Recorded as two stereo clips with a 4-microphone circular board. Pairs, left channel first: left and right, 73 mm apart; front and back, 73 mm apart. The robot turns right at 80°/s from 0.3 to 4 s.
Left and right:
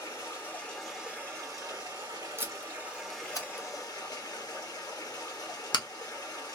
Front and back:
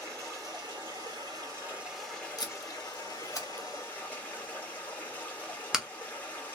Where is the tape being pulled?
30° right, 0.9 m; by 5.8 s 100° left, 0.9 m.